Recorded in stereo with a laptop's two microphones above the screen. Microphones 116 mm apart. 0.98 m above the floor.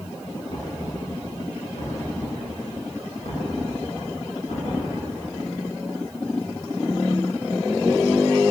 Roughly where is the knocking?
Left.